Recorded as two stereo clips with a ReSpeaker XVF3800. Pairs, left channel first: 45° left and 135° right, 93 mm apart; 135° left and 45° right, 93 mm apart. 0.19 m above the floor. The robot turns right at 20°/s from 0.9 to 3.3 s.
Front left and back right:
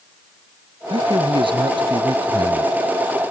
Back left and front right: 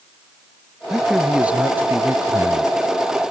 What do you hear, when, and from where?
0.9 s a man speaking: 130° right; by 3.3 s 85° right